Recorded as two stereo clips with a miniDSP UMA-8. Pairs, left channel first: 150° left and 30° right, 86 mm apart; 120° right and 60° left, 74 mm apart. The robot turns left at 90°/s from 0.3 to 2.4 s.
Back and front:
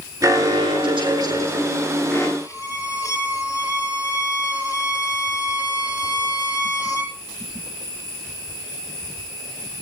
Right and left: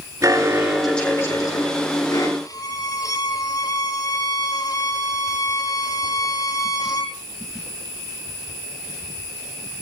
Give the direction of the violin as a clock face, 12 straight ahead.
5 o'clock.